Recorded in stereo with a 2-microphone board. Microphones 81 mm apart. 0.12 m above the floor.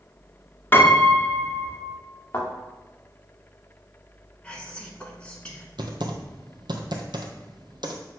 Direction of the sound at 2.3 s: 35° left (ahead or behind).